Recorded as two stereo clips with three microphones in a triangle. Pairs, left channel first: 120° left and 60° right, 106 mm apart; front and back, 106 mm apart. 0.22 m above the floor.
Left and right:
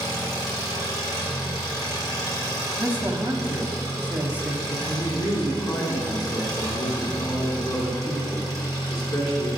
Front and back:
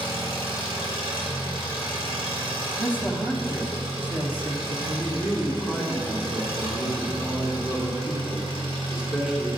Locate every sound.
0.0 s an engine running: 160° left, 2.5 m
2.8 s a man speaking: 120° right, 1.2 m
4.9 s a man speaking: 100° left, 2.5 m